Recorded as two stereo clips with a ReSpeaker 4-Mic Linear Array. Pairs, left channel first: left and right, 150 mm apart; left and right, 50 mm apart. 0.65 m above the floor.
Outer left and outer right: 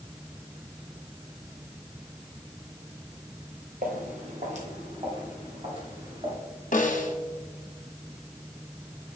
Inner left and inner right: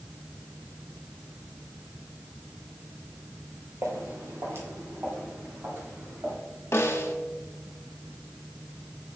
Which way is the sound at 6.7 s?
55° left (ahead or behind).